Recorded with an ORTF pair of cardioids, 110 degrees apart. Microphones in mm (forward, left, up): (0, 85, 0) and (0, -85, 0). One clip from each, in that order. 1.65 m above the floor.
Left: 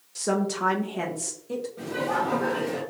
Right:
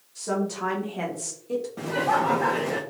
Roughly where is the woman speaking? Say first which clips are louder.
Left 2 dB; ahead left.